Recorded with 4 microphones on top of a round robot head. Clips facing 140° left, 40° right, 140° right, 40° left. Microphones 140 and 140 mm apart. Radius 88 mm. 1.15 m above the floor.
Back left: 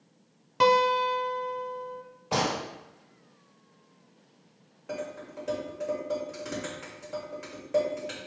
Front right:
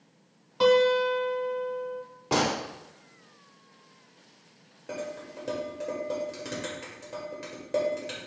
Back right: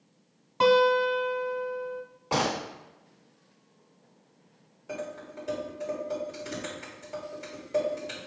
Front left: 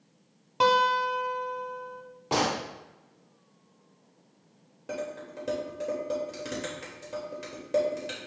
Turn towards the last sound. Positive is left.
turn(degrees=15)